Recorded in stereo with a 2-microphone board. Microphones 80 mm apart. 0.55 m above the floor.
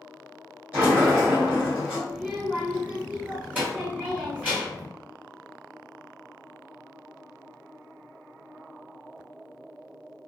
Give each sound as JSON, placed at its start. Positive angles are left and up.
{"t": 0.7, "sound": "a sliding door", "side_deg": -15, "distance_m": 1.5}
{"t": 2.1, "sound": "a child speaking", "side_deg": -15, "distance_m": 1.4}